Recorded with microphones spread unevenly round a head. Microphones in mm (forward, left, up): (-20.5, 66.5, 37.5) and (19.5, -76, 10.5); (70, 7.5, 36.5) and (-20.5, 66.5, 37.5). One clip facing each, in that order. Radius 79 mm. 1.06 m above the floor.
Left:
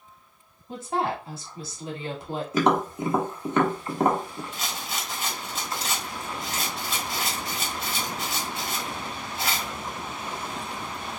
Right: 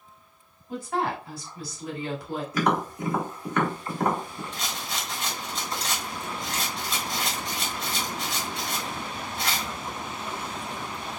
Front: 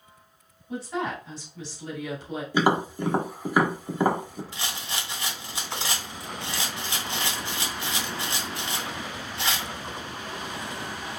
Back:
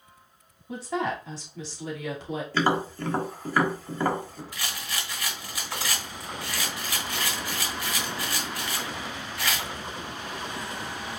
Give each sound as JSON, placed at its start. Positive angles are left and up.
{"t": 0.7, "sound": "a woman speaking", "azimuth_deg": 175, "distance_m": 2.5}
{"t": 2.5, "sound": "tapping", "azimuth_deg": 40, "distance_m": 1.3}
{"t": 4.5, "sound": "a rattle", "azimuth_deg": 25, "distance_m": 1.2}